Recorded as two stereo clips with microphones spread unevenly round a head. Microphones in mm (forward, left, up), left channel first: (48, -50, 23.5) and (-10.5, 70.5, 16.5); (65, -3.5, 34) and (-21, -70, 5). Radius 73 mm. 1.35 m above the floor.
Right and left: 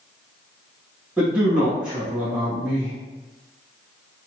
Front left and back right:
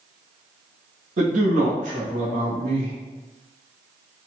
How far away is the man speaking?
About 1.7 m.